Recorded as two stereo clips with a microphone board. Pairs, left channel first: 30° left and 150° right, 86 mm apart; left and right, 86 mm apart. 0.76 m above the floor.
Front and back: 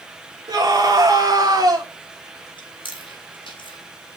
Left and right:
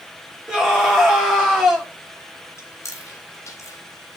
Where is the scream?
175° right, 2 m.